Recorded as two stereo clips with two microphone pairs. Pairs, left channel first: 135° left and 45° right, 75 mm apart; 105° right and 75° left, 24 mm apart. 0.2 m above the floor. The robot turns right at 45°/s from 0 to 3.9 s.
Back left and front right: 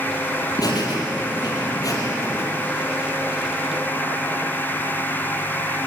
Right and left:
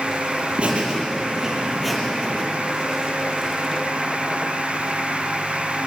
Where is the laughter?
110° left, 6.5 m; by 2.5 s 165° right, 6.5 m.